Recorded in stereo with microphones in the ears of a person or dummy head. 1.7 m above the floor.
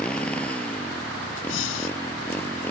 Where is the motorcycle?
10° left (ahead or behind); by 2.7 s 15° left (ahead or behind).